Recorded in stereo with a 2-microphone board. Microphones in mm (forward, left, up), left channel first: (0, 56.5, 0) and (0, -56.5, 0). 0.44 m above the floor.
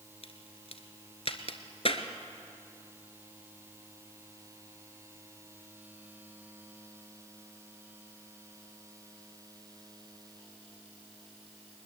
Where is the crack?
60° left (ahead or behind), 1.2 m.